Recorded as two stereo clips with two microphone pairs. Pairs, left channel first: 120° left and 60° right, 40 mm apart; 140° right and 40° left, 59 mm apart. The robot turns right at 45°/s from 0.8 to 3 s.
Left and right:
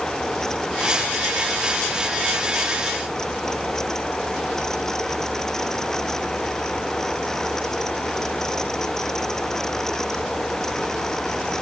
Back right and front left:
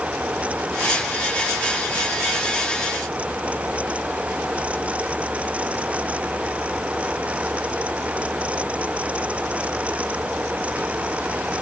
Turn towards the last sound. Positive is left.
No sound to turn to.